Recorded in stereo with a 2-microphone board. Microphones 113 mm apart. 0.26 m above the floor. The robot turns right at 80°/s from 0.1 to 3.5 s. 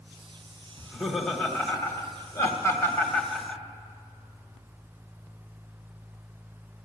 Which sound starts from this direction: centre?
Laughter, at 0.8 s.